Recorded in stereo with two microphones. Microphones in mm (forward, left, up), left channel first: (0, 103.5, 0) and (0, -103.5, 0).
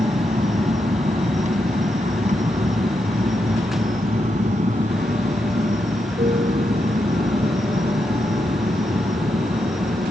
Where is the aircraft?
35° right (ahead or behind); by 10.1 s 40° right (ahead or behind).